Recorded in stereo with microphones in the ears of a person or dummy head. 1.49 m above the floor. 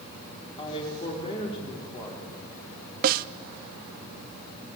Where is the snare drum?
45° right (ahead or behind), 0.7 m.